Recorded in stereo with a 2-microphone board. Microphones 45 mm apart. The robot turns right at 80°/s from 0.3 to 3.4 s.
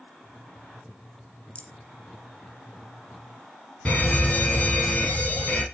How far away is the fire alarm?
About 2.5 m.